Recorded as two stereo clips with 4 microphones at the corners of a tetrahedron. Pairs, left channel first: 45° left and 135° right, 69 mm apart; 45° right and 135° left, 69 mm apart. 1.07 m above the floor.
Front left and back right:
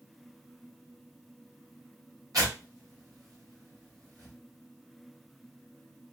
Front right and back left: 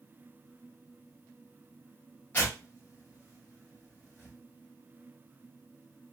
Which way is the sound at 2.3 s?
105° right.